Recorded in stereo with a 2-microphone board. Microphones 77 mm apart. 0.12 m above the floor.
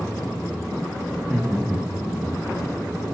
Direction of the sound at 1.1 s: 5° left (ahead or behind).